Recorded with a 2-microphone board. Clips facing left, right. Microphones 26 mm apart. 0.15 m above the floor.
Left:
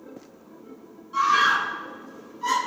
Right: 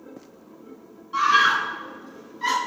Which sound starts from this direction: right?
A scream, at 1.1 s.